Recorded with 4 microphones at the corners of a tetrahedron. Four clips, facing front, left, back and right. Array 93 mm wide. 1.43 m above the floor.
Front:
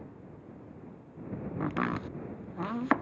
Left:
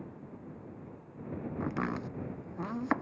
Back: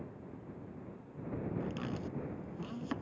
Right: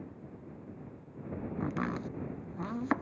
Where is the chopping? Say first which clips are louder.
Even, front 8 dB; 5° left.